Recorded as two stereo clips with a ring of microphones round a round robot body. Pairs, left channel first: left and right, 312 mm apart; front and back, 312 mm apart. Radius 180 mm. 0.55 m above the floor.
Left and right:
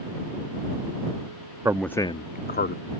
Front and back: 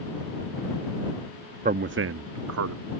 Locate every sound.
1.6 s a man speaking: 160° right; by 2.8 s 145° left